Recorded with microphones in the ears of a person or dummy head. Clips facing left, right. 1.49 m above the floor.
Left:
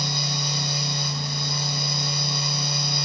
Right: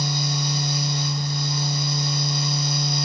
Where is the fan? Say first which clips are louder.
Right 4 dB; 65° left (ahead or behind), 0.9 m.